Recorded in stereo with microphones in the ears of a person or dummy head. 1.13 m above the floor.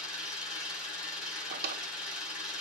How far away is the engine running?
About 4 m.